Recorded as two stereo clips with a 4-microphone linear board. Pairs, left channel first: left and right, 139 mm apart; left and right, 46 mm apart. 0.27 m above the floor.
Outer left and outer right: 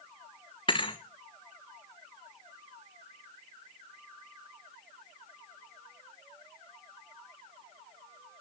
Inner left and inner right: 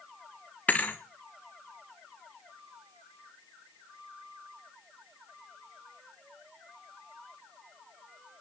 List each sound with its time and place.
0.7 s a thud: 35° left (ahead or behind), 1.9 m